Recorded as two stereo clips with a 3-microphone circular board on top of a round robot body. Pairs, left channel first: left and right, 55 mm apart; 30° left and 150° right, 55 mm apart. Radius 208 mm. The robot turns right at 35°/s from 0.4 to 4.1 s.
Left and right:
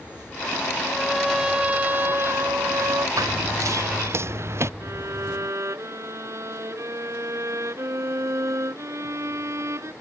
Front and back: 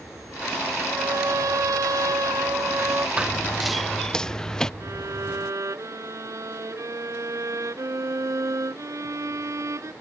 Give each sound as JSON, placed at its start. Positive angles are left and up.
{"t": 0.8, "sound": "a trumpet", "azimuth_deg": 175}
{"t": 3.2, "sound": "running footsteps", "azimuth_deg": -75}
{"t": 4.8, "sound": "a violin", "azimuth_deg": -125}